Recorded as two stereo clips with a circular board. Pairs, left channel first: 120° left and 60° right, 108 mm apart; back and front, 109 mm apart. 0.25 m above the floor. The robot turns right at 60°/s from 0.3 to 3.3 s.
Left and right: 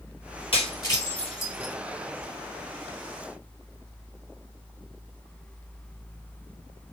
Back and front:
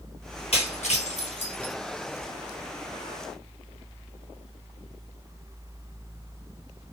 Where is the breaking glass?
155° left, 2.5 m; by 1.8 s 130° right, 2.5 m.